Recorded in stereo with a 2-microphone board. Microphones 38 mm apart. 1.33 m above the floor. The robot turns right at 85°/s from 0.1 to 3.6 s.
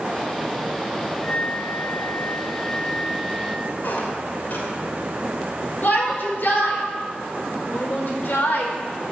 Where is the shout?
60° left (ahead or behind), 4 m.